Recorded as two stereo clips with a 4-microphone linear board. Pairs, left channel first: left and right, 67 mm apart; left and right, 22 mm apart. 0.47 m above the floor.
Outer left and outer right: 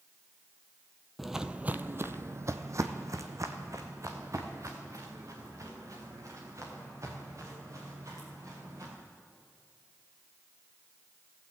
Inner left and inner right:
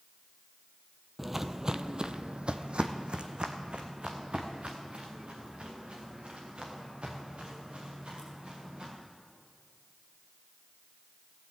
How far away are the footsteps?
About 0.5 m.